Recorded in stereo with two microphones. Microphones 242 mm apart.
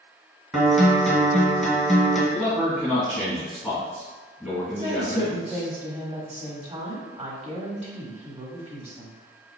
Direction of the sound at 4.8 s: 25° right (ahead or behind).